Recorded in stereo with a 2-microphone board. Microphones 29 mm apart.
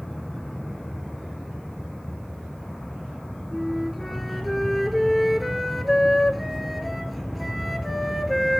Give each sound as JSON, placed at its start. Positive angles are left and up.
{"t": 3.5, "sound": "a flute", "side_deg": 0, "distance_m": 1.0}